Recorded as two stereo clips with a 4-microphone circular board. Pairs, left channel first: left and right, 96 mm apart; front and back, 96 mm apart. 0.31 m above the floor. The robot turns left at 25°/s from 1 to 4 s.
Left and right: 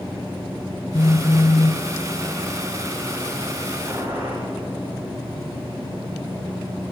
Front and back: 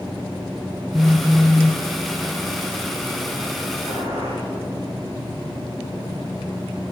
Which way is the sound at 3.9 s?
155° right.